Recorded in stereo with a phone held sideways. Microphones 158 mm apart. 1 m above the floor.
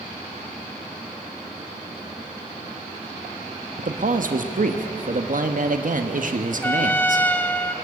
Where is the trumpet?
10° left (ahead or behind), 0.7 m.